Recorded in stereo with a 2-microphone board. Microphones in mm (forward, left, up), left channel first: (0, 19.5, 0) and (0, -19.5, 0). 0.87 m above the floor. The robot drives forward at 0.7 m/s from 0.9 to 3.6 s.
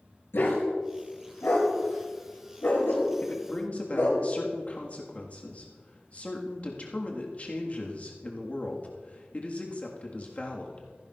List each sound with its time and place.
0.3 s a dog barking: 75° left (ahead or behind), 4.5 m
3.2 s a man speaking: 40° left (ahead or behind), 1.4 m; by 10.9 s 35° left (ahead or behind), 1.6 m